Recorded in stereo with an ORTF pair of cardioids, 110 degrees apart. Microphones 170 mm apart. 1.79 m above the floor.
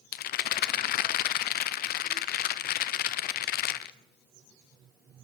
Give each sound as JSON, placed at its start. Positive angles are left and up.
{"t": 0.1, "sound": "a rattle", "azimuth_deg": 65, "distance_m": 0.8}